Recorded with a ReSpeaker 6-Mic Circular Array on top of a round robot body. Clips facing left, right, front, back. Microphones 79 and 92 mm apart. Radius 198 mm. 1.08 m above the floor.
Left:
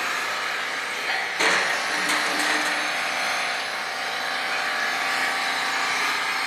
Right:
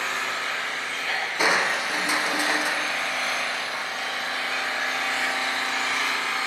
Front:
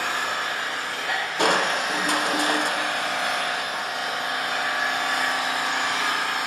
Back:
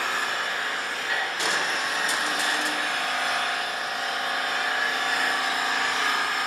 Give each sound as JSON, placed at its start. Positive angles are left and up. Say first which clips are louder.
{"t": 0.0, "sound": "an engine running", "louder": "left 1 dB, front 1 dB", "azimuth_deg": 15, "distance_m": 4.5}
{"t": 1.4, "sound": "crushing", "louder": "right 1 dB, front 5 dB", "azimuth_deg": -15, "distance_m": 1.0}